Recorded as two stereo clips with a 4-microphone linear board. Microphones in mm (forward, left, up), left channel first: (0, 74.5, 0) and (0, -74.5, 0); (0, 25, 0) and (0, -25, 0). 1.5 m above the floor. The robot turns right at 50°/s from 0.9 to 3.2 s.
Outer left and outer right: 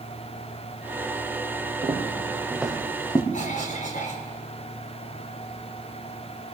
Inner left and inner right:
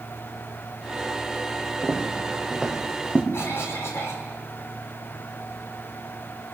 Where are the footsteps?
50° right (ahead or behind), 4.5 m; by 3.2 s 30° left (ahead or behind), 4.5 m.